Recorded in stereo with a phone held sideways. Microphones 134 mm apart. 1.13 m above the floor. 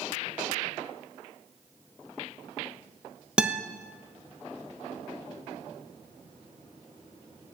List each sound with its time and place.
3.4 s a guitar: 5° right (ahead or behind), 0.6 m